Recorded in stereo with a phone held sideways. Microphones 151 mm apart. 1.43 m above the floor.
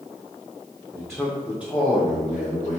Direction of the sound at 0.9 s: 10° right (ahead or behind).